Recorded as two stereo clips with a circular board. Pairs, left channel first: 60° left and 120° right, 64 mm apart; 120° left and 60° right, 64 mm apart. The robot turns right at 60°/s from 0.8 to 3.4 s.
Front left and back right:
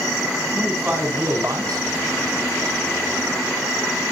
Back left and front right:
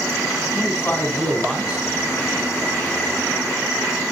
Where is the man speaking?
175° left, 4.5 m; by 1.9 s 125° right, 4.5 m.